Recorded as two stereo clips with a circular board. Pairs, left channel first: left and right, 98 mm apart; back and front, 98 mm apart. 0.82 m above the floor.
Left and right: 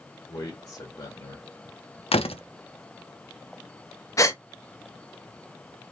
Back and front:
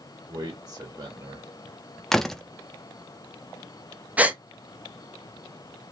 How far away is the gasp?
About 0.8 m.